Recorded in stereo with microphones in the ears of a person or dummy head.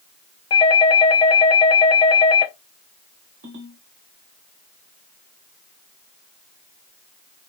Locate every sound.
0.5 s a doorbell: 25° left (ahead or behind), 0.5 m
3.4 s a ringtone: 60° right (ahead or behind), 2 m